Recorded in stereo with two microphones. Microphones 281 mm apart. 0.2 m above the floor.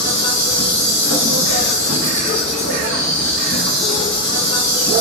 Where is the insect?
85° left, 1.1 m.